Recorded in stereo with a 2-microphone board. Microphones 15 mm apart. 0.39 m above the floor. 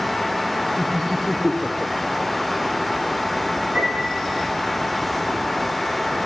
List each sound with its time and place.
0.8 s laughter: 5° right (ahead or behind), 0.7 m
3.8 s a piano: 50° right (ahead or behind), 9.5 m